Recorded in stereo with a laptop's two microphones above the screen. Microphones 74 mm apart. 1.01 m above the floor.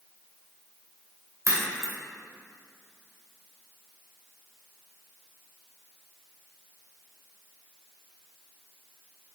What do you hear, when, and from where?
1.4 s a crack: 45° right (ahead or behind), 1.7 m